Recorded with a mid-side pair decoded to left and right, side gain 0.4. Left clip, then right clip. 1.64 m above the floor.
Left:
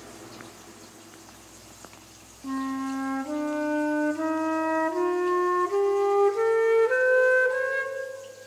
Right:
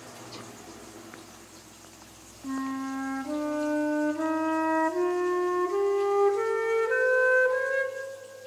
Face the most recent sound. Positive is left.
turn(degrees=15)